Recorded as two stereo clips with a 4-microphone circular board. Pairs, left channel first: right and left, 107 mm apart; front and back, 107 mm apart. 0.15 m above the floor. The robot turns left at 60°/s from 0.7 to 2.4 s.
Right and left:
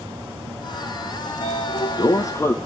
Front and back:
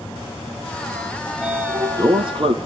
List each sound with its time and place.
1.3 s a sliding door: 85° right, 0.6 m; by 2.5 s 155° right, 0.6 m